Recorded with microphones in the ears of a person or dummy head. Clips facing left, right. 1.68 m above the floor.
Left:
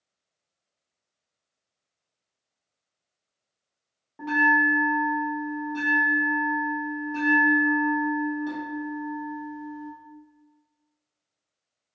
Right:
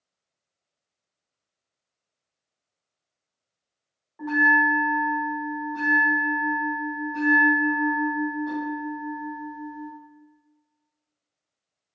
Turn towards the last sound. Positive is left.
turn(degrees=35)  # may be behind; listen again after turning